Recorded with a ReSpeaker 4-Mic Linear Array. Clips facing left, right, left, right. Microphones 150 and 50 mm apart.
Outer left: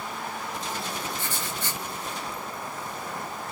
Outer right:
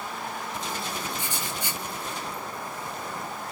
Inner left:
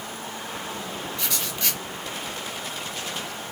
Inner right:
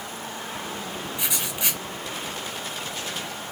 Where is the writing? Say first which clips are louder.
Even, inner right 2 dB; 15° right (ahead or behind), 0.9 m.